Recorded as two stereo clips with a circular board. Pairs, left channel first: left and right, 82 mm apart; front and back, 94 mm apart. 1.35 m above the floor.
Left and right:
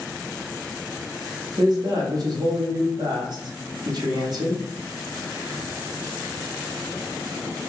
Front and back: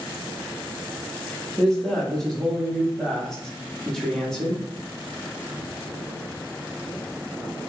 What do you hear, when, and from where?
1.6 s a man speaking: 85° right, 0.9 m